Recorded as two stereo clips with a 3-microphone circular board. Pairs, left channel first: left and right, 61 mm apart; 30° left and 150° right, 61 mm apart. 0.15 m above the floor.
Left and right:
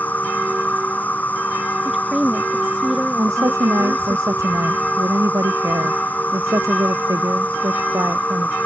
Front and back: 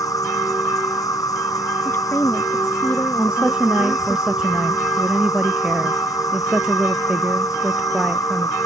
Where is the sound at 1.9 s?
10° right.